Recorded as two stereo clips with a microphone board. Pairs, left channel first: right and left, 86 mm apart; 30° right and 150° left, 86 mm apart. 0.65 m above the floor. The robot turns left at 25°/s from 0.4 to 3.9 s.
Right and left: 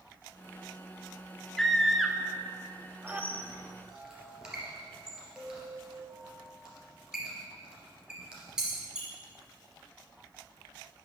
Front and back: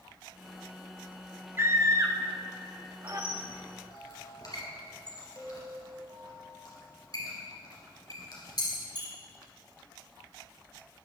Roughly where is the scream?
Behind.